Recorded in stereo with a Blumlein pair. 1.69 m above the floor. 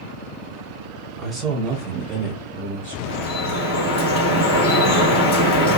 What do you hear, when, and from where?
1.2 s a man speaking: 5° right, 1.4 m; by 3.0 s 65° right, 1.3 m
3.0 s dripping: 45° left, 1.1 m